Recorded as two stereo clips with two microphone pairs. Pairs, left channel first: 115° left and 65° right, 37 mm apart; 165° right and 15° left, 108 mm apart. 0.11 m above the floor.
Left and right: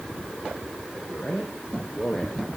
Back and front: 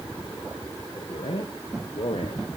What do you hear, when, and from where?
1.0 s a man speaking: 165° left, 5 m; by 2.4 s 175° left, 3 m